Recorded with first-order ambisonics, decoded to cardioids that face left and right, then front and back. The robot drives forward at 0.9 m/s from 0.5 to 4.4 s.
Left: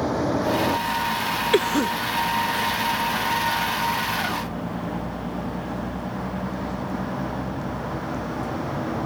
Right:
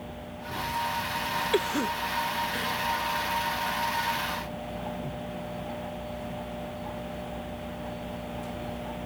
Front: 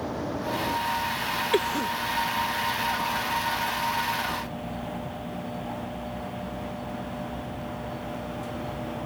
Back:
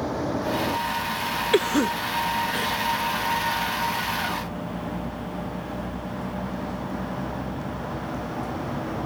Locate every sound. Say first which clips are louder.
0.0 s a vehicle: left 17 dB, back 4 dB; 105° left; by 9.1 s 115° left
1.5 s a cough: left 8 dB, back 5 dB; 120° left; by 2.8 s 170° left